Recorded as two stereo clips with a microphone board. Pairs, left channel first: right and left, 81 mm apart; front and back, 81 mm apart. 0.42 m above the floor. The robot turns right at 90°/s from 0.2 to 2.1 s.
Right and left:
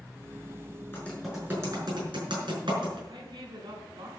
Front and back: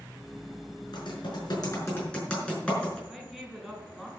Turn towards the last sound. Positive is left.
turn(degrees=90)